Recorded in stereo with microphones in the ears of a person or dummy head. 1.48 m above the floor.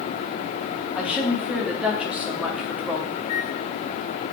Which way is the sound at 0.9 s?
10° right (ahead or behind).